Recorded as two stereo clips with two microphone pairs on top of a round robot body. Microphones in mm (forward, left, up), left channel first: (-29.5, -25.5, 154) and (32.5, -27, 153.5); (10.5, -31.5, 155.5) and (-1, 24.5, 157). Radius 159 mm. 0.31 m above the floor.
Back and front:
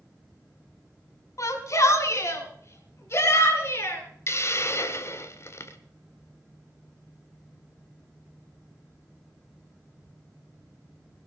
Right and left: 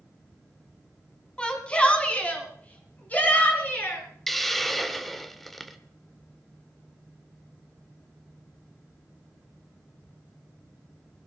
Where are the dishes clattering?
No dishes clattering in this recording.